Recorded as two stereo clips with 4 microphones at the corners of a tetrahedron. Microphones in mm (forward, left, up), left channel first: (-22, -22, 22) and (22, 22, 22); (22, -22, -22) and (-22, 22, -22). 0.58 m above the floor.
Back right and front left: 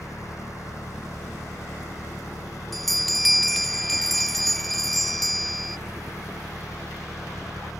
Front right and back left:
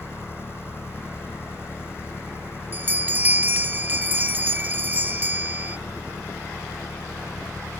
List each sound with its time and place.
0.0 s an engine running: 95° right
2.7 s a bell: 140° left